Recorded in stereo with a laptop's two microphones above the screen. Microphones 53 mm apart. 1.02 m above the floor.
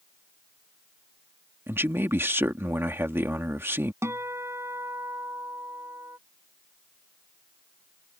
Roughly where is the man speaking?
Right.